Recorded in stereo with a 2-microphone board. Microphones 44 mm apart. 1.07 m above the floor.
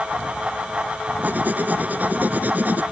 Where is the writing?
40° right (ahead or behind).